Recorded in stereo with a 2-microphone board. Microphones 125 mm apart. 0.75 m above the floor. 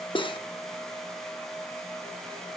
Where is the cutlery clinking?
40° left (ahead or behind), 0.6 m.